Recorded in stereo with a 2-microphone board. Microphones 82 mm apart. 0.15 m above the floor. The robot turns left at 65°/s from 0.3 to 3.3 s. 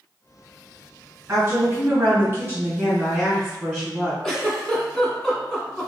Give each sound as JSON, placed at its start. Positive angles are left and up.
{"t": 1.3, "sound": "a woman speaking", "azimuth_deg": -55, "distance_m": 1.6}
{"t": 4.2, "sound": "a giggle", "side_deg": 5, "distance_m": 0.9}